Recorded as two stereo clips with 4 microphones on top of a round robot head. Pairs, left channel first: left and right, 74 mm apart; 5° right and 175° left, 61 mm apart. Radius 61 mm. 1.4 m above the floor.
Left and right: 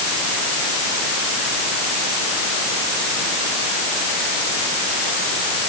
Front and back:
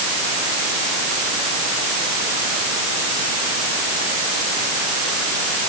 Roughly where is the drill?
I don't hear a drill.